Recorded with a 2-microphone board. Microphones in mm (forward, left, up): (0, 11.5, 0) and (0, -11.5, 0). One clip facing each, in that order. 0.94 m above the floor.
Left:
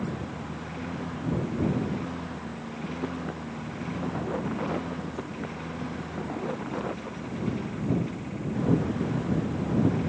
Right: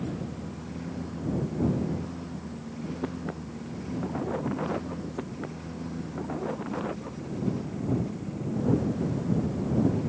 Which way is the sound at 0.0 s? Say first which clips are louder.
Left 1 dB; 40° left (ahead or behind).